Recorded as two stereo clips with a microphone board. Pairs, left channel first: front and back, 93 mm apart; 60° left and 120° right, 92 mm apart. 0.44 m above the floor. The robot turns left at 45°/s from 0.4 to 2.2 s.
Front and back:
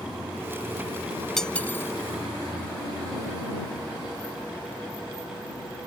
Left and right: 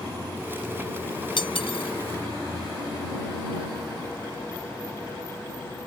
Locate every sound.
1.4 s cutlery clinking: 85° left; by 1.9 s 60° left